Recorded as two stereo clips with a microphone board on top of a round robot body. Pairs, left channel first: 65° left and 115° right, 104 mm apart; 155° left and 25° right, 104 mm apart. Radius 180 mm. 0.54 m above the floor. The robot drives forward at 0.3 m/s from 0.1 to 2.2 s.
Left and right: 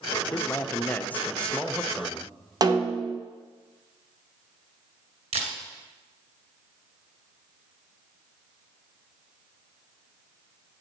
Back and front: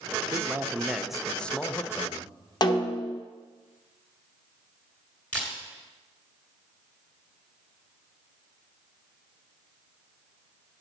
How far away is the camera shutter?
About 2 m.